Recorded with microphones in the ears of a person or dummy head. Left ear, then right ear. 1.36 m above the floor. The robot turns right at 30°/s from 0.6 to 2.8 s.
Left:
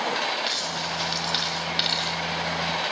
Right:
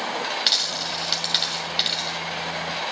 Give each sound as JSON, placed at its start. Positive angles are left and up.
{"t": 0.5, "sound": "a dropped coin", "side_deg": -35, "distance_m": 2.0}